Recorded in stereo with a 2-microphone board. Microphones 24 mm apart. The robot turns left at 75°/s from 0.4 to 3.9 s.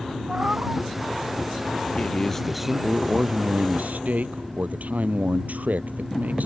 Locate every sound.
0.3 s a cat meowing: 40° right; by 0.8 s 75° right
1.9 s a man speaking: 45° left; by 6.5 s 100° right